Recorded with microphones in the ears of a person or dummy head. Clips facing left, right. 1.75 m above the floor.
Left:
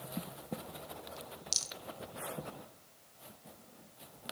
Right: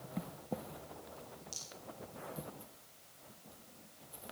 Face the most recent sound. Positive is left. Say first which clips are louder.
# left 3 dB
turn(degrees=75)  # may be behind; listen again after turning